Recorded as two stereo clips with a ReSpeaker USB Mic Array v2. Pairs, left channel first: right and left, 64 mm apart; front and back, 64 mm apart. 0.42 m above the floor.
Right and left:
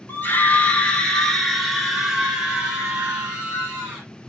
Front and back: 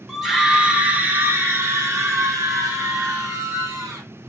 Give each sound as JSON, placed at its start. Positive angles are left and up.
{"t": 0.1, "sound": "a scream", "azimuth_deg": -95, "distance_m": 1.1}